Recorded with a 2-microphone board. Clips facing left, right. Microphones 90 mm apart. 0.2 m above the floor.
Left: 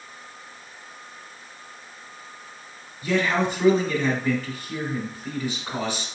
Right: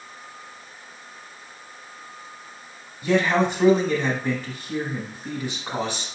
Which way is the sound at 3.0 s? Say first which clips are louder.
Right 3 dB; 20° right (ahead or behind).